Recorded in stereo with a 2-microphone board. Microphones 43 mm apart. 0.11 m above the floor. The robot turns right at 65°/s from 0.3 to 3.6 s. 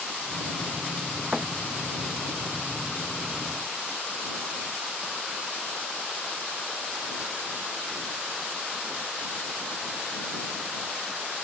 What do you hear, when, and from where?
1.3 s a thud: 20° right (ahead or behind); by 1.5 s 10° right (ahead or behind)